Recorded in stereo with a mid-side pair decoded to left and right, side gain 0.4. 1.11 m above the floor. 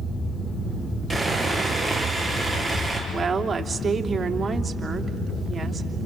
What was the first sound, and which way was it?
Sawing, 5° left.